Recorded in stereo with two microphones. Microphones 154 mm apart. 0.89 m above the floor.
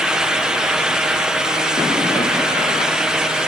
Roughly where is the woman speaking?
No woman speaking in this recording.